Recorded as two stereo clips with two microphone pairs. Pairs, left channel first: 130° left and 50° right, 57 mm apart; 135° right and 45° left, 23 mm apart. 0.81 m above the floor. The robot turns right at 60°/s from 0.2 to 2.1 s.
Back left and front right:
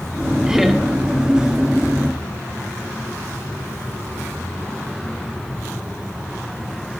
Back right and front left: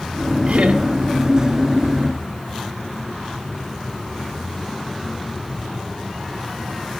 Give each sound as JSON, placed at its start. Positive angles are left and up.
{"t": 0.5, "sound": "laughter", "azimuth_deg": 25, "distance_m": 1.9}